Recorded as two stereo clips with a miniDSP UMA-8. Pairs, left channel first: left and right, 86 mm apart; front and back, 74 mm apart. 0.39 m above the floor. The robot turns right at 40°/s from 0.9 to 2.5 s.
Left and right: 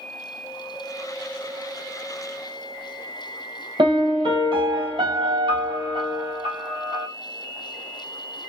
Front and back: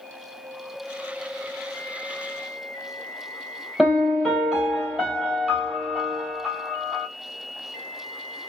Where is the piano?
95° right, 1.8 m.